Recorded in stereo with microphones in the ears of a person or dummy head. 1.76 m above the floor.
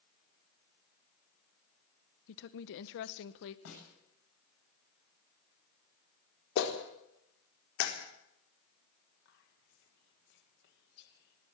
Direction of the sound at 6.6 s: 70° left (ahead or behind).